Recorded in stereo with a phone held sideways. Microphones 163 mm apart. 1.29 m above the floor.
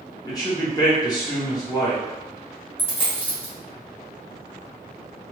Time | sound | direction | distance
0.2 | a man speaking | 25° left (ahead or behind) | 1.0 m
2.8 | a dropped coin | 15° left (ahead or behind) | 1.1 m